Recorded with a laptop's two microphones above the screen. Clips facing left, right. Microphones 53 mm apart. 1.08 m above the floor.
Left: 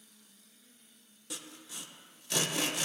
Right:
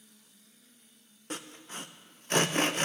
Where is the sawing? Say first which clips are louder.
Right 6 dB; 40° right (ahead or behind), 0.6 m.